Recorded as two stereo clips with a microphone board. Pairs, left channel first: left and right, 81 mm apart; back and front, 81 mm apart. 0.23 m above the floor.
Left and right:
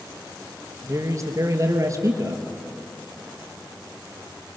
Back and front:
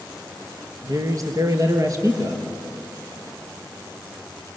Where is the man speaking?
45° right, 3.5 m.